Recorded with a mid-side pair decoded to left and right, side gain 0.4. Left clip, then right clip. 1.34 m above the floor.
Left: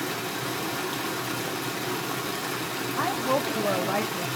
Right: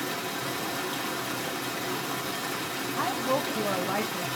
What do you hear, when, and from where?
0.0 s running water: 20° left, 1.2 m
3.0 s a woman speaking: 20° left, 0.6 m